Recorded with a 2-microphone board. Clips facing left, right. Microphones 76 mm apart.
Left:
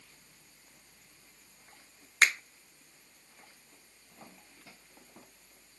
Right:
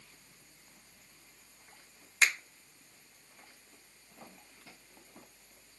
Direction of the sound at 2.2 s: 55° left (ahead or behind).